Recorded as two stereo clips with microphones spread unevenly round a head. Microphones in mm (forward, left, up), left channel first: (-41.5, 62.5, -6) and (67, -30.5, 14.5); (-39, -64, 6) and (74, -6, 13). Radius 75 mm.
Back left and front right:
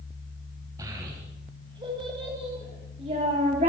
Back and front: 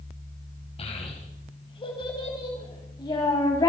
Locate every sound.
0.8 s a child speaking: 110° right, 4 m; by 3.7 s 90° right, 4.5 m